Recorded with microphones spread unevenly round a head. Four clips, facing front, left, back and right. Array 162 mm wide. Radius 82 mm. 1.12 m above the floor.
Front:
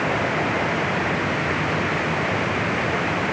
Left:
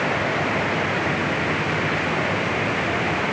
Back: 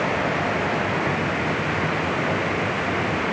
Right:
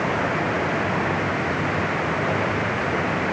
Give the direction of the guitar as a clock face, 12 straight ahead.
No guitar in this recording.